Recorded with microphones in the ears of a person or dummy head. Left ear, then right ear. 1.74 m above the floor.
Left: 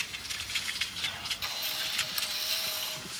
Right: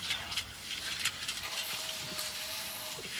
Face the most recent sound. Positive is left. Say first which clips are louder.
# left 4 dB
turn(degrees=40)  # may be behind; listen again after turning